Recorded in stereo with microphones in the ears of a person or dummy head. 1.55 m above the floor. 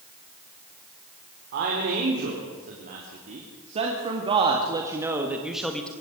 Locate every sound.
1.5 s a man speaking: 55° right (ahead or behind), 4.5 m; by 5.9 s 10° left (ahead or behind), 2.0 m